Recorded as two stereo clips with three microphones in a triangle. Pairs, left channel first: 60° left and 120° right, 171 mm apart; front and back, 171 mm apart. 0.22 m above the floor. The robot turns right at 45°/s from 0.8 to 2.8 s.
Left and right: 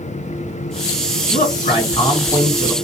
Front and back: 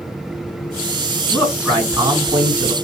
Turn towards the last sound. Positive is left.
turn(degrees=150)